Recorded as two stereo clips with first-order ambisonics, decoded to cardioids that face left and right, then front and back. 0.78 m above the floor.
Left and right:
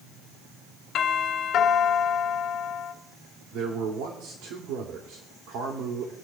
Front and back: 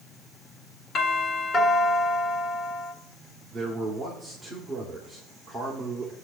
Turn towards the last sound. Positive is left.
turn(degrees=-90)